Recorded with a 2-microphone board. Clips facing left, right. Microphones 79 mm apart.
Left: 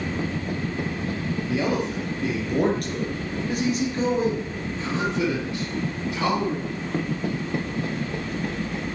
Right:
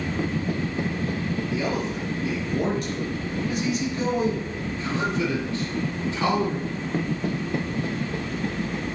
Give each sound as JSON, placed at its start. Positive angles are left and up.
{"t": 1.5, "sound": "a man speaking", "side_deg": 70, "distance_m": 3.5}